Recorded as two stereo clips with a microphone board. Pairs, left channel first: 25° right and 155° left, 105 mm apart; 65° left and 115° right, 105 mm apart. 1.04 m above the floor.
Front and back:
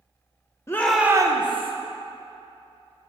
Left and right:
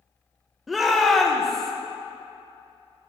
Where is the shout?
25° right, 0.5 m; by 1.7 s 155° left, 0.9 m.